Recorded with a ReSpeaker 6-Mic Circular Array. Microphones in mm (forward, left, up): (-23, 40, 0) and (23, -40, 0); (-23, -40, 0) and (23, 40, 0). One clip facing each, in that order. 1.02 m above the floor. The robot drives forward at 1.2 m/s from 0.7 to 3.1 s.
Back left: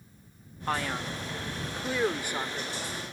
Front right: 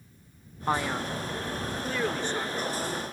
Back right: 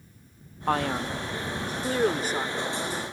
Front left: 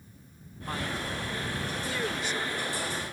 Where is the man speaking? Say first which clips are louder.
Front right 3 dB, back right 8 dB; 130° right; by 2.9 s 165° right.